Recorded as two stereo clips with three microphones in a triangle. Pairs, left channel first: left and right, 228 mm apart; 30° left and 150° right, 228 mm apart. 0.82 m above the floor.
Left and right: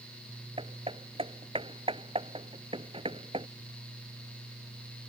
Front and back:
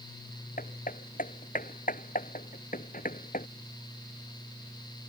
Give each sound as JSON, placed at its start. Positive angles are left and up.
{"t": 0.6, "sound": "hammering", "azimuth_deg": -25}